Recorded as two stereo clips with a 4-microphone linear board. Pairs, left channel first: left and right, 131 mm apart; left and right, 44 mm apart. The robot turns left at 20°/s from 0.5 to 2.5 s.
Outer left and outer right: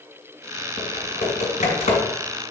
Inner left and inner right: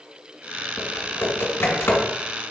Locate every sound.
0.8 s typing on a keyboard: 80° left, 2 m; by 2.1 s 60° left (ahead or behind), 2 m